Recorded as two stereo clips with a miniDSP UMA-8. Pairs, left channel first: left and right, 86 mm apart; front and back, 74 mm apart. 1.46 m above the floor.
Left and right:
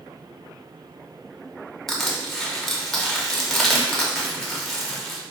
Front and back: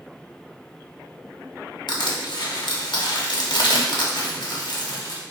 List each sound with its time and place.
1.9 s crushing: 5° left, 0.7 m